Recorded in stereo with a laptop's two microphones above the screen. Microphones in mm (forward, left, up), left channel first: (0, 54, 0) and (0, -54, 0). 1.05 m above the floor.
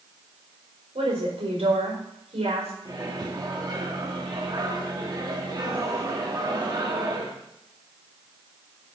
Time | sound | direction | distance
0.9 | a woman speaking | 75° right (ahead or behind) | 4.5 m
2.9 | a microwave | 40° right (ahead or behind) | 1.3 m